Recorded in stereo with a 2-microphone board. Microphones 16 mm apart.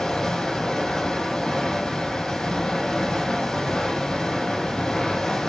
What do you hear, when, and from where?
0.0 s running water: 75° left (ahead or behind), 4.5 m